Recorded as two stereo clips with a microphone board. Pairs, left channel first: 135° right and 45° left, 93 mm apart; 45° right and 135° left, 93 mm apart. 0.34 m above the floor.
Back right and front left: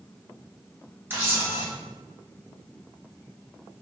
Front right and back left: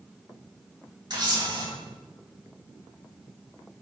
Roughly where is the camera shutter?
Left.